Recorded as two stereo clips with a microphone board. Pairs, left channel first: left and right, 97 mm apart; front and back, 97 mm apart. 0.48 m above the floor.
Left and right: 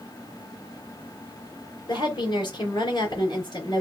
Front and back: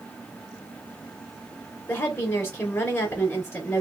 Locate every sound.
1.9 s a woman speaking: 65° left, 2.5 m